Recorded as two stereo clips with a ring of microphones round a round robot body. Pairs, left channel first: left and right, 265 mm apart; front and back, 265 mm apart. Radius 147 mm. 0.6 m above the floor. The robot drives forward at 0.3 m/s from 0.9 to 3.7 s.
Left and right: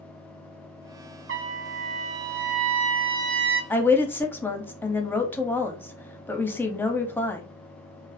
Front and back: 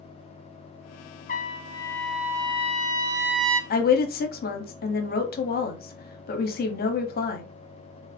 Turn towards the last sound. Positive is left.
turn(degrees=15)